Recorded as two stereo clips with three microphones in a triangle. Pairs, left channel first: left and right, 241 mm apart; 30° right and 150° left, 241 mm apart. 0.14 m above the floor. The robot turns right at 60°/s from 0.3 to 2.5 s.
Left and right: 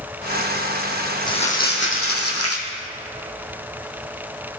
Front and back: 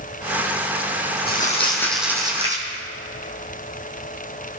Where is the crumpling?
15° left, 3 m; by 2.6 s 90° left, 3 m.